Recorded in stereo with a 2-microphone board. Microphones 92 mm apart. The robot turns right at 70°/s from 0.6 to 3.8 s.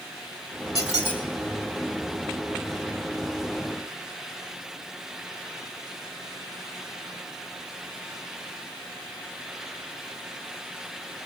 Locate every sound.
0.8 s a squeak: 135° left, 3.5 m; by 1.2 s 165° left, 3.5 m